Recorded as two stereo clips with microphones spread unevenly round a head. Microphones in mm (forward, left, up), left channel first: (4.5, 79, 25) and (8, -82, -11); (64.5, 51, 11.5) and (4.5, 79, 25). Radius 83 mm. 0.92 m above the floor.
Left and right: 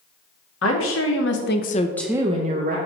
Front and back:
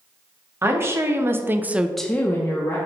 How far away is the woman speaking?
About 1.8 m.